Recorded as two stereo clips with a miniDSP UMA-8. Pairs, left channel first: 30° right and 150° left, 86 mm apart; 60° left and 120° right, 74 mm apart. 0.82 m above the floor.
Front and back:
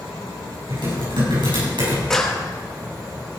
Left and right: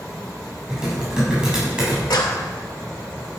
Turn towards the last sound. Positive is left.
turn(degrees=55)